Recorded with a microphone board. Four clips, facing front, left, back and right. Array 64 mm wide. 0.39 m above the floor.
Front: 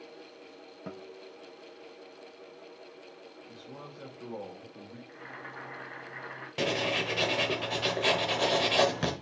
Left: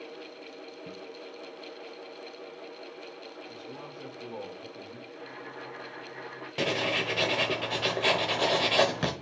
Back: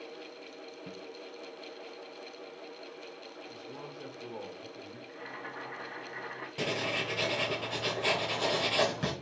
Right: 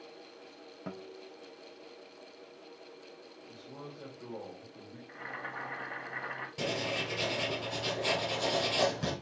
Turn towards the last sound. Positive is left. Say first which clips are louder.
# left 6 dB, front 4 dB
turn(degrees=60)